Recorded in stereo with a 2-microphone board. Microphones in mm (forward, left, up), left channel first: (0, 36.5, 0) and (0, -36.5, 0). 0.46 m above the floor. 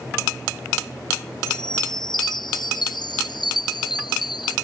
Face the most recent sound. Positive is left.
turn(degrees=85)